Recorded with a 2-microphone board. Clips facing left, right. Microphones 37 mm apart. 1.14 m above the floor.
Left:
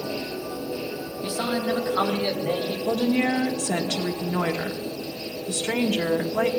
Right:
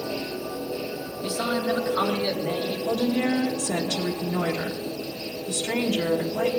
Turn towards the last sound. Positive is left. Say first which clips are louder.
# left 2 dB
turn(degrees=55)  # may be behind; listen again after turning